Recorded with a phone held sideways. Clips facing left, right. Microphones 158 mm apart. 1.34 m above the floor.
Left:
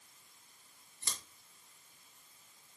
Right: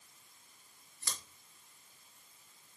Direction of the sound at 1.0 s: 25° left (ahead or behind).